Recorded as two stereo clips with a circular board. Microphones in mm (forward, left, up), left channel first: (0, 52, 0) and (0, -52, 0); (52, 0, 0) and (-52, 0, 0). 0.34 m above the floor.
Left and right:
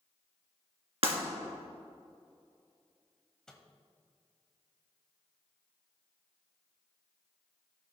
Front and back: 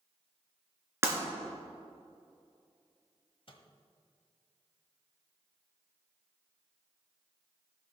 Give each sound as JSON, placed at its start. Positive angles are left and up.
{"t": 1.0, "sound": "breaking glass", "azimuth_deg": -115, "distance_m": 2.5}
{"t": 3.5, "sound": "a microwave", "azimuth_deg": 5, "distance_m": 1.3}